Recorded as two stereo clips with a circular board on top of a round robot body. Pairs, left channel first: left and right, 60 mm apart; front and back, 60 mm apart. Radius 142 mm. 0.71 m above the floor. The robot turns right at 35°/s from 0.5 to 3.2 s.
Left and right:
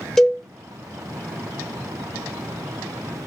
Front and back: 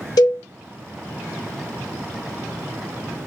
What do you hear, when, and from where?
0.2 s a cowbell: 5° left, 0.8 m